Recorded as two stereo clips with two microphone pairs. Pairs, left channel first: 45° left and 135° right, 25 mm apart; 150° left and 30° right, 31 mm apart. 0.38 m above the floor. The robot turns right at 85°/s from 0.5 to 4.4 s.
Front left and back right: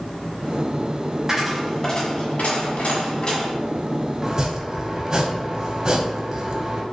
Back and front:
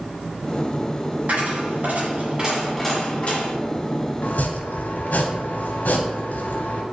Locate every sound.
1.3 s a dropped coin: 65° right, 1.5 m; by 3.5 s 125° left, 1.5 m
4.2 s chopping: 150° left, 0.7 m; by 6.8 s 165° left, 0.7 m